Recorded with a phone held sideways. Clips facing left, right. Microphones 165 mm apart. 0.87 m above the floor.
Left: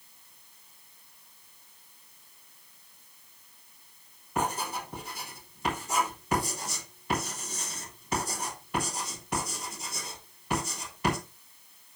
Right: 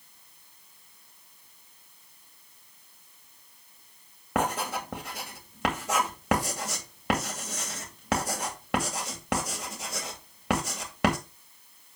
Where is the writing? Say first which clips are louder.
Right 3 dB; 70° right (ahead or behind), 2.5 m.